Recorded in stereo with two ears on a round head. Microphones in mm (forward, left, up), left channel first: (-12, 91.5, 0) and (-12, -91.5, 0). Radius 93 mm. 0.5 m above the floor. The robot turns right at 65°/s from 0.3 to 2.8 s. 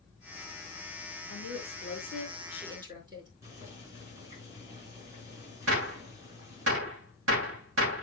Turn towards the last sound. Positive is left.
turn(degrees=-70)  # may be behind; listen again after turning